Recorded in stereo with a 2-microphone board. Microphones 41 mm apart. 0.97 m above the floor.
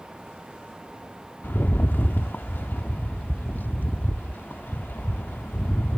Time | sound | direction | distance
1.4 | a rattle | 55° left (ahead or behind) | 0.7 m